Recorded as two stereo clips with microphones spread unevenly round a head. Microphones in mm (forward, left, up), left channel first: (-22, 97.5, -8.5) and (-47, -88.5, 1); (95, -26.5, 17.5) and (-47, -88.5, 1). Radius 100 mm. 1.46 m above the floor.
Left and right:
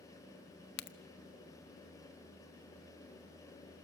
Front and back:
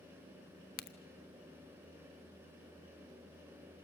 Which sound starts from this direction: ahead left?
A crack, at 0.8 s.